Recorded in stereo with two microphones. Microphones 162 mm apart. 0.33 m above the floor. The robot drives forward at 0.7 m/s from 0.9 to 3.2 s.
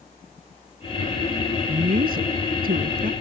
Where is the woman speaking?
70° right (ahead or behind); by 3.1 s 65° right (ahead or behind).